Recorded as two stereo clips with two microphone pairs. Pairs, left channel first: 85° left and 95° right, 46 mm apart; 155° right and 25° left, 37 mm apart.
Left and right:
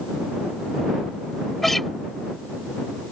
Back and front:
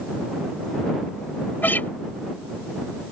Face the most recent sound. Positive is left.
turn(degrees=175)